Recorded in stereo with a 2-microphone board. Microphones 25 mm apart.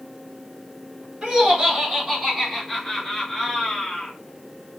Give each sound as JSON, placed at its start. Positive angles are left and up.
{"t": 1.2, "sound": "laughter", "side_deg": -40, "distance_m": 1.8}